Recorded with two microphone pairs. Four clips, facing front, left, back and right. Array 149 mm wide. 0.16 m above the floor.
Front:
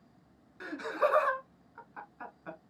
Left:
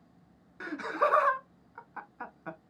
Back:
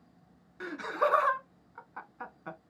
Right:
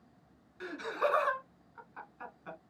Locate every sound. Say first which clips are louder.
0.6 s laughter: left 4 dB, back 1 dB; 120° left, 1.1 m